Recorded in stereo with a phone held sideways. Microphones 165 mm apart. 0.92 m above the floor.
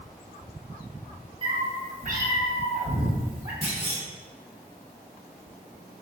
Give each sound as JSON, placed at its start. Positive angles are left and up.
{"t": 1.4, "sound": "a cat meowing", "side_deg": -30, "distance_m": 0.7}
{"t": 3.6, "sound": "a clunk", "side_deg": -40, "distance_m": 1.5}